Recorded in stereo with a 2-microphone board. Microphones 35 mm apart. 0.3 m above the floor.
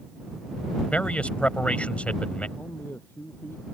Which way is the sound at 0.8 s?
40° left (ahead or behind).